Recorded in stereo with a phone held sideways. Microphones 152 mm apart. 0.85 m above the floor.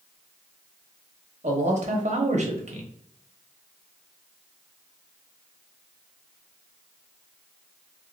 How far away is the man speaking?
About 1.1 m.